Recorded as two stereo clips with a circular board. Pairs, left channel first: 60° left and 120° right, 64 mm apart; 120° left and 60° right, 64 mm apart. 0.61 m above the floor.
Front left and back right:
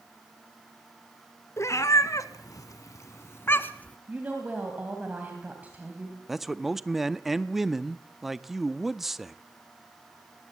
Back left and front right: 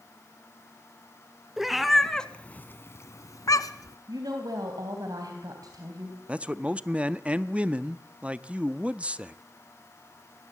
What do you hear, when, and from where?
1.6 s a cat meowing: 20° left, 1.2 m; by 4.0 s 125° left, 1.1 m
4.1 s a woman speaking: 50° right, 3 m
6.3 s a man speaking: 45° right, 0.5 m